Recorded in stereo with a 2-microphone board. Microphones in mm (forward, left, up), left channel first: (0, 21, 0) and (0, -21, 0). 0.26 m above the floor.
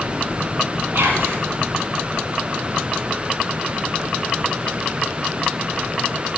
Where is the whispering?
65° right (ahead or behind), 6 m.